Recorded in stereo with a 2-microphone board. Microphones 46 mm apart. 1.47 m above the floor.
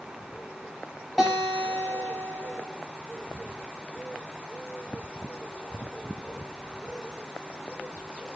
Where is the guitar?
Centre (ahead or behind), 5.5 m.